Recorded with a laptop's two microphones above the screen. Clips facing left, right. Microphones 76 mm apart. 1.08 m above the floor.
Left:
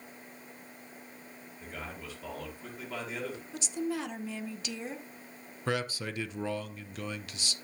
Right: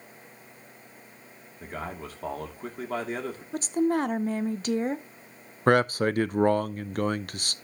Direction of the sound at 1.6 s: 50° right (ahead or behind).